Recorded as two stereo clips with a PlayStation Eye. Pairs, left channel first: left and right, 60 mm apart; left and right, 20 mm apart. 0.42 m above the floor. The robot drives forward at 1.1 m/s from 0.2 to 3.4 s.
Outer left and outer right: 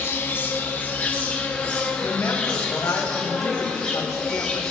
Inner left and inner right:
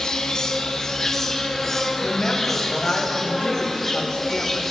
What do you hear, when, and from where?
0.0 s an insect: 40° left (ahead or behind), 1.8 m; by 4.7 s 15° left (ahead or behind), 5 m
2.0 s a woman speaking: 45° left (ahead or behind), 3 m; by 4.6 s 65° left (ahead or behind), 2.5 m